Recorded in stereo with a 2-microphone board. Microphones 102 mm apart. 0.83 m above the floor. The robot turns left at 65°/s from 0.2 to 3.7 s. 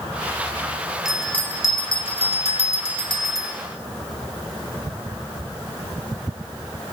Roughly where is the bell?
Behind.